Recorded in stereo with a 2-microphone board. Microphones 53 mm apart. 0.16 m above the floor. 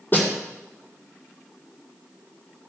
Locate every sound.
0.1 s a snare drum: 40° left (ahead or behind), 4.5 m